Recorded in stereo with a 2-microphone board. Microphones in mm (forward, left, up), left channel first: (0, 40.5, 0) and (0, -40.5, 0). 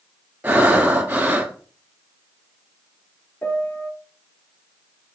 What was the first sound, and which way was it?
Breathing, 20° right (ahead or behind).